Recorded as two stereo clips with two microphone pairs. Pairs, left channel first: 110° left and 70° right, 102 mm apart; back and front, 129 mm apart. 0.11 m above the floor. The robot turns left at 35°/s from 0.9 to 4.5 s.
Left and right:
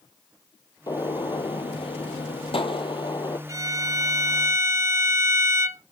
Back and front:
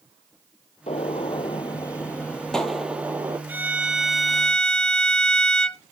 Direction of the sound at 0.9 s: 155° left.